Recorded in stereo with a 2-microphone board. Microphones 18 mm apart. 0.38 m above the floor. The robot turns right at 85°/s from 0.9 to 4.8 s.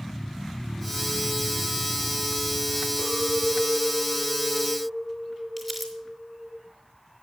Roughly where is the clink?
Ahead left.